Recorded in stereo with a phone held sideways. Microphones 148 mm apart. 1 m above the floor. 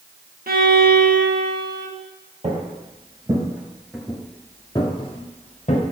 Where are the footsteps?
45° right (ahead or behind), 1.6 m; by 5.8 s 55° left (ahead or behind), 1.5 m.